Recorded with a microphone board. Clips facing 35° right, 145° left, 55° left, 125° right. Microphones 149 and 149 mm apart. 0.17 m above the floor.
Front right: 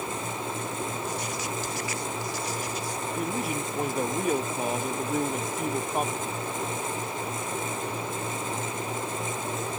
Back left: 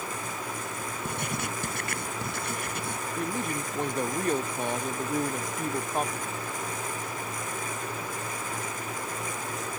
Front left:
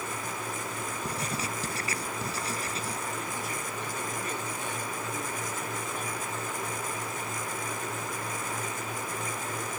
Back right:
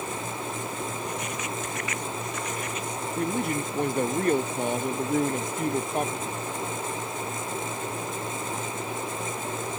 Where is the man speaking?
120° right.